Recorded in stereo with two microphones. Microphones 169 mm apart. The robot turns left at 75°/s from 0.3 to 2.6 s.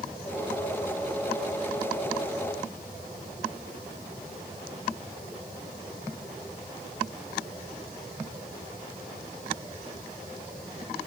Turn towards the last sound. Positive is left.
No sound to turn to.